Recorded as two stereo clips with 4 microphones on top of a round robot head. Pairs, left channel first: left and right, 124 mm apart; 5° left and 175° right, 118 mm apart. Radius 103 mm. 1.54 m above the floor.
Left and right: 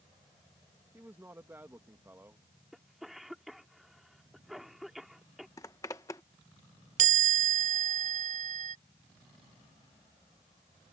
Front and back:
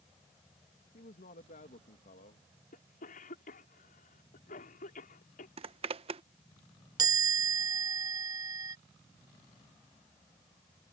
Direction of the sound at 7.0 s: 110° right.